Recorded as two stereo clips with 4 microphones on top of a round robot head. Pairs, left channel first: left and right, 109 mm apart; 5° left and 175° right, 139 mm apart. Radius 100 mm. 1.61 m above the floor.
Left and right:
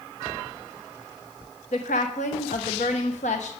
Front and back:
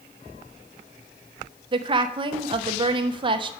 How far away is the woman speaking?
About 0.9 m.